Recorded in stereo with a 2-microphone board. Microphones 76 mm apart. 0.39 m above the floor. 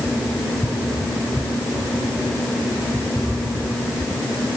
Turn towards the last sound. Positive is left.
No sound to turn to.